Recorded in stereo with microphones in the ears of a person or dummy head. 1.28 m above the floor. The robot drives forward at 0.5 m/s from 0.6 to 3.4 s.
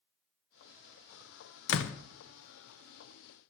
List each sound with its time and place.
1.7 s a door slam: 70° left (ahead or behind), 0.7 m; by 2.0 s 80° left, 0.7 m